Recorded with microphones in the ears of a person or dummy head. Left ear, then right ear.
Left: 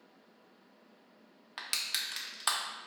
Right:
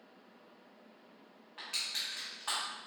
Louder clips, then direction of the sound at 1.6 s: Left 2 dB; 70° left (ahead or behind).